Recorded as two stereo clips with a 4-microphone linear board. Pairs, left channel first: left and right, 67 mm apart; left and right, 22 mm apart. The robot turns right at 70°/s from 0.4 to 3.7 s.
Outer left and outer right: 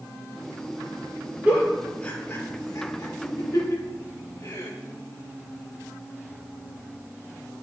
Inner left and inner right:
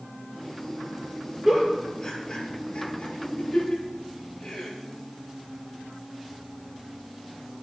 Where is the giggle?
25° right (ahead or behind), 5 m; by 4.7 s 45° left (ahead or behind), 5 m.